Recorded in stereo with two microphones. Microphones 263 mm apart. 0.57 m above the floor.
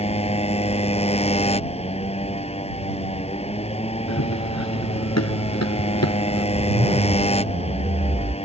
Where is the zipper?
35° right (ahead or behind).